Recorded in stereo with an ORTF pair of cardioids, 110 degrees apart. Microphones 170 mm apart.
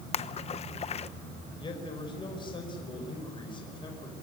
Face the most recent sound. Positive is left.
turn(degrees=30)